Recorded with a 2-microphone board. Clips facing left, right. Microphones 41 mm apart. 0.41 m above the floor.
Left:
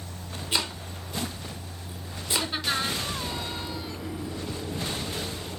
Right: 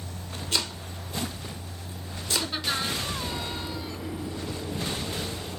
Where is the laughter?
10° left (ahead or behind), 3.5 m.